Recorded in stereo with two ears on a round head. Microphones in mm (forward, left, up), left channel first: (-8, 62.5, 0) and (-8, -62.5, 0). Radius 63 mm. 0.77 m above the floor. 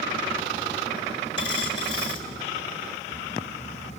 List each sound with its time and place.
1.4 s a dropped coin: 40° left (ahead or behind), 2 m